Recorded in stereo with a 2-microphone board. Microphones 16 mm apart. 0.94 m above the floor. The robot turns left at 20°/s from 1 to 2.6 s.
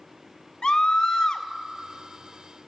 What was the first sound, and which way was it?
A scream, 80° left.